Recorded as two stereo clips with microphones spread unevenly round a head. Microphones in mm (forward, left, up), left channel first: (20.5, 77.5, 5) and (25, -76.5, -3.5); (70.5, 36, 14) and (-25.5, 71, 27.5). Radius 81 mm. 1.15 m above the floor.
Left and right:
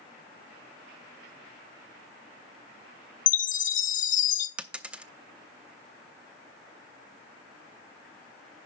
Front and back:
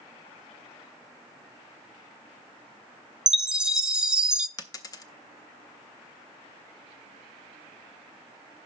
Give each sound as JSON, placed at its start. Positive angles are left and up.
{"t": 3.3, "sound": "a chime", "azimuth_deg": 70, "distance_m": 0.7}
{"t": 4.6, "sound": "a dropped coin", "azimuth_deg": -5, "distance_m": 0.6}